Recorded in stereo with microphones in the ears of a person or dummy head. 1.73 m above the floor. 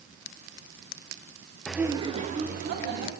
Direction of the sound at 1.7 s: Centre (ahead or behind).